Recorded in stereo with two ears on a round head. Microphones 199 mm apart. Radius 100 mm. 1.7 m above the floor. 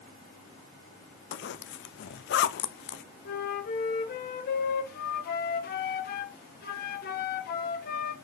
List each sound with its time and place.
1.3 s a zipper: 55° left (ahead or behind), 0.6 m
3.2 s a flute: 45° left (ahead or behind), 0.9 m